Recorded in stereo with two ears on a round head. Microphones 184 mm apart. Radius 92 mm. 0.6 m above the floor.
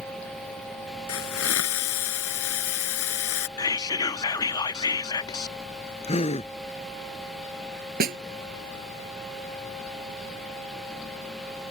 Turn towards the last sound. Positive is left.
turn(degrees=-50)  # may be behind; listen again after turning